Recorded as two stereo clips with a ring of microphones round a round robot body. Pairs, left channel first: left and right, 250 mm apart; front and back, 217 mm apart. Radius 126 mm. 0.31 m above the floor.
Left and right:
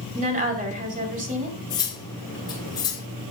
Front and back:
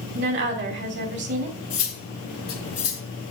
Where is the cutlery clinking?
15° left, 3.5 m.